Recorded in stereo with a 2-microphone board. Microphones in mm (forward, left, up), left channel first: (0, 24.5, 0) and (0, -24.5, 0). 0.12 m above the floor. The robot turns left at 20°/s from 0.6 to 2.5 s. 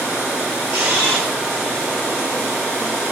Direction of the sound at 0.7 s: 65° right (ahead or behind).